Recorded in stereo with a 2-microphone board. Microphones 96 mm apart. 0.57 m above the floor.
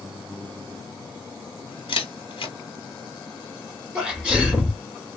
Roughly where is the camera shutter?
Left.